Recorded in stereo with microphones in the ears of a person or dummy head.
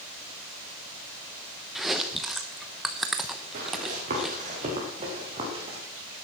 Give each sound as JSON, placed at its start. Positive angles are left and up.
{"t": 1.8, "sound": "chewing", "side_deg": -5, "distance_m": 0.9}
{"t": 3.5, "sound": "running footsteps", "side_deg": -50, "distance_m": 6.5}